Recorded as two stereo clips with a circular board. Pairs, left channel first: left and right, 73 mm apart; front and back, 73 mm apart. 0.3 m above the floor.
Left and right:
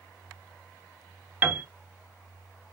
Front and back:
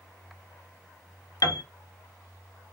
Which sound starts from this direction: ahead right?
A piano, at 1.4 s.